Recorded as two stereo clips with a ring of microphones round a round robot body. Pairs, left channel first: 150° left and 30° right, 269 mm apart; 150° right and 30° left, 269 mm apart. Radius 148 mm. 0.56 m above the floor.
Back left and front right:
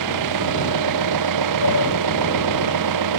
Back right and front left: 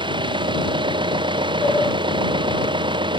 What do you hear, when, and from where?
0.0 s an engine running: 45° right
1.6 s a sliding door: 125° left